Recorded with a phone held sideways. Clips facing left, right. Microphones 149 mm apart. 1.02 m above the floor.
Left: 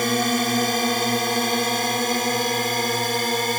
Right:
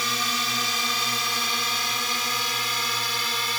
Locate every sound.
0.0 s a drone: 50° left (ahead or behind)